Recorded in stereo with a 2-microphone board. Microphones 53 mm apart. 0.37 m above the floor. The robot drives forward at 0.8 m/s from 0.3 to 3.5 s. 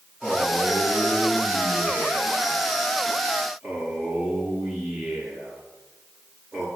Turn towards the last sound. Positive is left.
turn(degrees=10)  # may be behind; listen again after turning